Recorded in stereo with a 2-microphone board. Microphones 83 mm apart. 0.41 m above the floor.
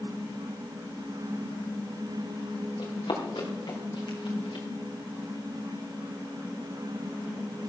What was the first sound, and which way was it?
Running footsteps, 85° left.